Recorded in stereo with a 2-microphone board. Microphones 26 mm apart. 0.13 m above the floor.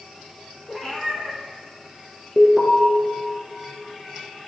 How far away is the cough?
No cough in this recording.